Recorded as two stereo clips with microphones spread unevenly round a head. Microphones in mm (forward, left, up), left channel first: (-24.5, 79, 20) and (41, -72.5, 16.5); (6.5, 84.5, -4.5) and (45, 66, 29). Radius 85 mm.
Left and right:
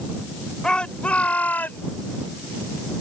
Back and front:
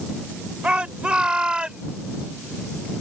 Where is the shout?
30° left; by 1.9 s 35° left.